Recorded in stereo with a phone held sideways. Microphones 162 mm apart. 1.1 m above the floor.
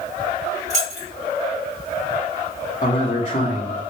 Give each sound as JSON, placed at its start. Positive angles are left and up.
{"t": 0.7, "sound": "keys jangling", "side_deg": -45, "distance_m": 1.5}
{"t": 2.8, "sound": "a man speaking", "side_deg": 35, "distance_m": 1.2}